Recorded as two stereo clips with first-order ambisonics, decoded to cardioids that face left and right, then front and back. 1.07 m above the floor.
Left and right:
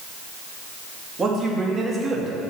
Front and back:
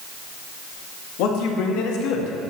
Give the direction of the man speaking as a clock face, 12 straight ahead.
1 o'clock.